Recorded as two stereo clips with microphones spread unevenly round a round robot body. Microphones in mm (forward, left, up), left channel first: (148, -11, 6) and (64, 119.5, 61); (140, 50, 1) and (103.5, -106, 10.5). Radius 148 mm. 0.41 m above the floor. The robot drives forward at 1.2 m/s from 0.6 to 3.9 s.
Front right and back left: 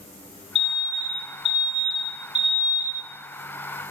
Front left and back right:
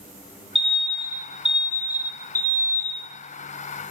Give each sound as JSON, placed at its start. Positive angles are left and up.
{"t": 0.6, "sound": "an alarm", "azimuth_deg": -15, "distance_m": 4.0}